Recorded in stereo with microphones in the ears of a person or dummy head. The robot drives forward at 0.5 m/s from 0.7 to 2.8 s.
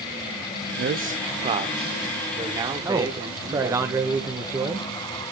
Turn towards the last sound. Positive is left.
turn(degrees=-20)  # may be behind; listen again after turning